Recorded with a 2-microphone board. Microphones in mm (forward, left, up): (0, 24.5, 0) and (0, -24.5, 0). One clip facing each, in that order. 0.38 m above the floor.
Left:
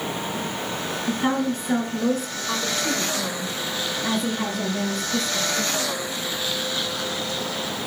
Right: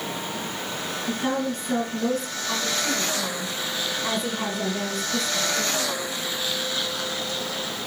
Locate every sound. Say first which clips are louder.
1.1 s a woman speaking: left 3 dB; 20° left (ahead or behind), 4 m; by 5.7 s 20° right (ahead or behind), 3.5 m